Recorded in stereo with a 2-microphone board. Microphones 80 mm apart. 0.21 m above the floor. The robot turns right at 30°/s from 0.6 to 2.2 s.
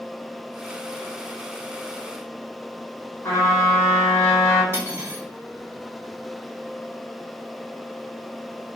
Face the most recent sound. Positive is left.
turn(degrees=-30)  # may be behind; listen again after turning